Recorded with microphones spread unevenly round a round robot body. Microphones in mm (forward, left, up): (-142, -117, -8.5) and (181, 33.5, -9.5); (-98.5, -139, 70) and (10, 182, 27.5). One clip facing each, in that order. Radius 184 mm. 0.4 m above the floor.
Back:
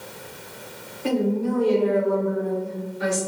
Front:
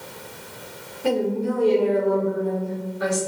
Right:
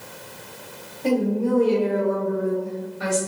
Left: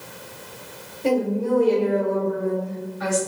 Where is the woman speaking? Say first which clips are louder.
Even, even; 5° left, 1.8 m; by 3.2 s 105° right, 1.3 m.